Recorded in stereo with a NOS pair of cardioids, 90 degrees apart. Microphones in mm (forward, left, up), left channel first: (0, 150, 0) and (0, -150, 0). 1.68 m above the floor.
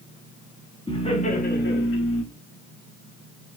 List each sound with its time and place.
0.9 s laughter: 15° left, 1.7 m; by 2.2 s 55° left, 1.3 m